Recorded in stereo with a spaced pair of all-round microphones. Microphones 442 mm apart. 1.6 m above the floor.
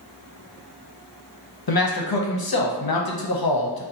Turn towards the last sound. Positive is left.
turn(degrees=55)  # may be behind; listen again after turning